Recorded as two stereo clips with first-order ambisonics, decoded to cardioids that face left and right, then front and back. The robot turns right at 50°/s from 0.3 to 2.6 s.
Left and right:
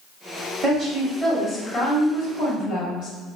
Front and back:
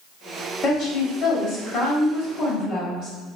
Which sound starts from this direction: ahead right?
A woman speaking, at 0.6 s.